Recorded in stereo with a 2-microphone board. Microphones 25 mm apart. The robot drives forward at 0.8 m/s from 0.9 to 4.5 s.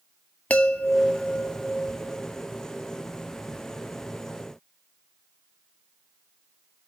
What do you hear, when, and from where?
0.5 s a chime: 70° left (ahead or behind), 0.8 m; by 2.4 s 30° left (ahead or behind), 1.5 m